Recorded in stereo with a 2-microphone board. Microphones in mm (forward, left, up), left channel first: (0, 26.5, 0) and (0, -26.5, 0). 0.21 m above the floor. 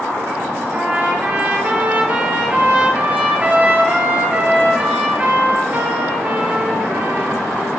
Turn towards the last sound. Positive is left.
turn(degrees=-25)  # may be behind; listen again after turning